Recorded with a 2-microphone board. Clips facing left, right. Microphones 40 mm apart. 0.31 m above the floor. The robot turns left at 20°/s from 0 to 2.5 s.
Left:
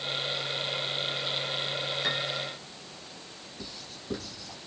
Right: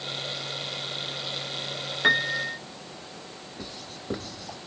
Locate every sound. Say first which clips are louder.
2.0 s a piano: right 8 dB; 40° right (ahead or behind), 0.6 m; by 2.6 s 50° right (ahead or behind), 0.6 m
3.6 s writing: right 3 dB; 45° right (ahead or behind), 1.6 m